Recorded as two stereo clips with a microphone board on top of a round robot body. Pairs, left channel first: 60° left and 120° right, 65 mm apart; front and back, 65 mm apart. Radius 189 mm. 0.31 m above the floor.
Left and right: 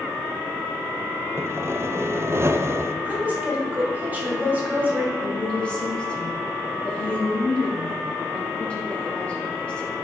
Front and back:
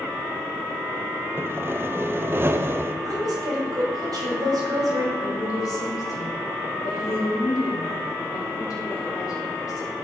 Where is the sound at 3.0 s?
175° left, 2.5 m.